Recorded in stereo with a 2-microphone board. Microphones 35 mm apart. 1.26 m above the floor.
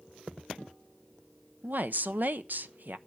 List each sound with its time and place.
1.6 s a woman speaking: 55° right (ahead or behind), 0.7 m